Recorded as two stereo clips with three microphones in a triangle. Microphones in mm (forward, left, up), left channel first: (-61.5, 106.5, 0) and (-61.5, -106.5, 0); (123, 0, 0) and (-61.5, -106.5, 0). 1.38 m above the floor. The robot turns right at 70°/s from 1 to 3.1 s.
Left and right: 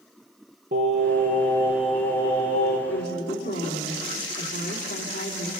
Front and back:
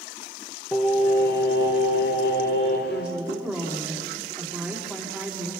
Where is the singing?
60° right, 4.5 m; by 2.8 s 65° left, 4.5 m.